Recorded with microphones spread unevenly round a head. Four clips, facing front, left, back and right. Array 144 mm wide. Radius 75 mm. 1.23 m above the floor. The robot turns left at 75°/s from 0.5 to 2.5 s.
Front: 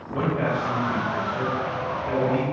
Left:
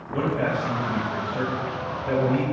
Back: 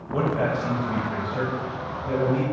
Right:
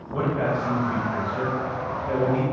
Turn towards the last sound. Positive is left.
turn(degrees=40)